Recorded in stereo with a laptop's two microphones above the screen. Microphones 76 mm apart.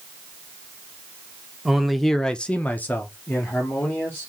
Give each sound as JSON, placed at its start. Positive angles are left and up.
{"t": 1.6, "sound": "a man speaking", "side_deg": -5, "distance_m": 0.6}